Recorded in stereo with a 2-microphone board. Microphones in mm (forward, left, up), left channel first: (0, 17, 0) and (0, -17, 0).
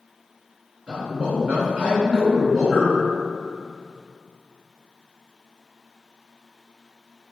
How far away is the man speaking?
About 1.4 m.